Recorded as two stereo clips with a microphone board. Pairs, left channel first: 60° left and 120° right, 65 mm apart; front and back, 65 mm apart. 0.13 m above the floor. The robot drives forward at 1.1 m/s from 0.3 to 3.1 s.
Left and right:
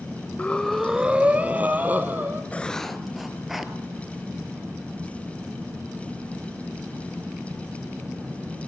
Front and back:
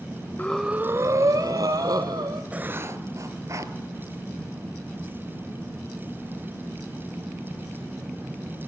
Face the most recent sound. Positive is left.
turn(degrees=155)